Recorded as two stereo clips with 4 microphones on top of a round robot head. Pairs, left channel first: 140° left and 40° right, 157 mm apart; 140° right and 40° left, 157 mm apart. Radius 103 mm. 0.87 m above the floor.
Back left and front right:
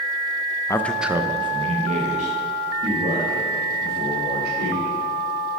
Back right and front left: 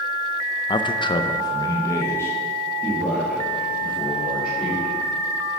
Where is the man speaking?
170° right, 0.5 m; by 5.0 s 60° right, 2.5 m.